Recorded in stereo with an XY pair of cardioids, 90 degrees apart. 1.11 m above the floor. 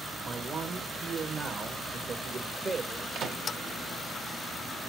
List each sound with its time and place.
0.2 s a man speaking: 40° right, 1.4 m
3.1 s a microwave: 65° right, 1.1 m